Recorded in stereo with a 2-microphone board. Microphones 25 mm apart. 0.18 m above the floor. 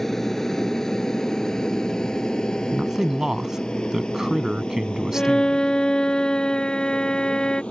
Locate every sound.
0.0 s an aircraft: 15° left (ahead or behind); by 7.7 s 50° left (ahead or behind)
2.7 s a man speaking: 25° right (ahead or behind)
5.1 s a violin: 35° left (ahead or behind)